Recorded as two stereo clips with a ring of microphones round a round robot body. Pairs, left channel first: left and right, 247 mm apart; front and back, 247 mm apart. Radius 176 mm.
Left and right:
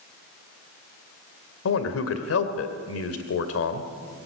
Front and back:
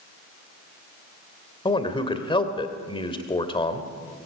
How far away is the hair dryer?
No hair dryer in this recording.